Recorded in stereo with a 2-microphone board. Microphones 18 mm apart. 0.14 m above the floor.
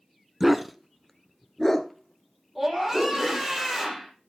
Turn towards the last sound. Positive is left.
turn(degrees=-5)  # may be behind; listen again after turning